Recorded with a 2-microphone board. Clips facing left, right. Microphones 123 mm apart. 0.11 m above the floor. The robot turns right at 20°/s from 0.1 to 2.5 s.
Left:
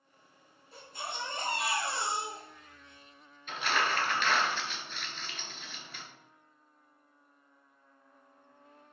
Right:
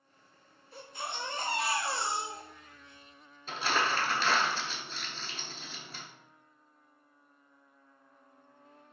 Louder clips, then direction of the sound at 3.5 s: Right 1 dB; 35° right (ahead or behind).